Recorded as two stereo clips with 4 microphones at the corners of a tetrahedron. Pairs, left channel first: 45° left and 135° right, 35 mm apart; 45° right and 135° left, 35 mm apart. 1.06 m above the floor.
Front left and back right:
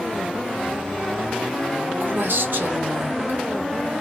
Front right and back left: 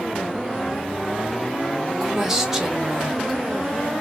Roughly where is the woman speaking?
Behind right.